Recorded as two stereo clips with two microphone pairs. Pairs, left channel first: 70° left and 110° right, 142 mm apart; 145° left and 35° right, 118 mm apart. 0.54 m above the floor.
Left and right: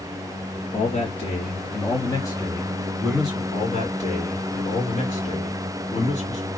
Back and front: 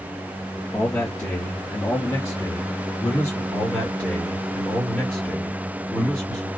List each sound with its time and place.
0.7 s a man speaking: 80° left, 1.5 m; by 3.4 s straight behind, 1.0 m
3.5 s a man speaking: 65° left, 1.9 m